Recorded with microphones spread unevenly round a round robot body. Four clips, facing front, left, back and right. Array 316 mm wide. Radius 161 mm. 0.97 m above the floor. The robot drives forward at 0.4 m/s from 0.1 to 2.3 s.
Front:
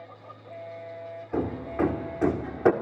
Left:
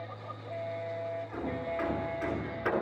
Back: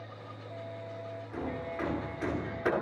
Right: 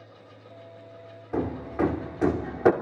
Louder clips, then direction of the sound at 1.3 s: Right 9 dB, front 9 dB; 45° right.